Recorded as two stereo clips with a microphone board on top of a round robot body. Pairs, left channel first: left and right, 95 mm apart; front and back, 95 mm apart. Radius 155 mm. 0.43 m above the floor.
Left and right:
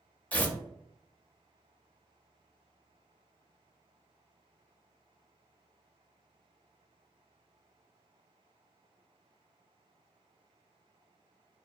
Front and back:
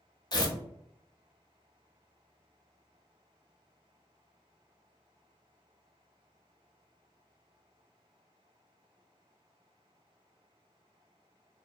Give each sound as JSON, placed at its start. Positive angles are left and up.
{"t": 0.3, "sound": "tearing paper", "azimuth_deg": 20, "distance_m": 0.8}